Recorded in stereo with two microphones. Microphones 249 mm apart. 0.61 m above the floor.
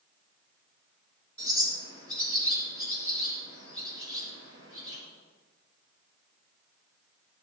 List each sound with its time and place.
1.4 s a bird: 60° left (ahead or behind), 3.5 m